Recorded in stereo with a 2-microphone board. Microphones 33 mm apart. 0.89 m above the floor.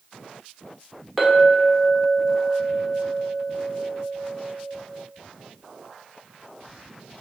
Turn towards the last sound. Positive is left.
turn(degrees=0)  # may be behind; listen again after turning